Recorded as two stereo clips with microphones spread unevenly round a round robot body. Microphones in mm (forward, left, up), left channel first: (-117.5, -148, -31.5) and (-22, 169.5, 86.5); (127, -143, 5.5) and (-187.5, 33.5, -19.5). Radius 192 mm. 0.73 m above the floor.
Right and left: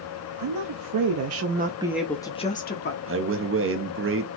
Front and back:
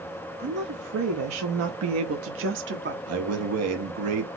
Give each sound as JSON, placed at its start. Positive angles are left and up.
{"t": 0.4, "sound": "a woman speaking", "azimuth_deg": 90, "distance_m": 0.9}
{"t": 3.1, "sound": "a man speaking", "azimuth_deg": 135, "distance_m": 1.0}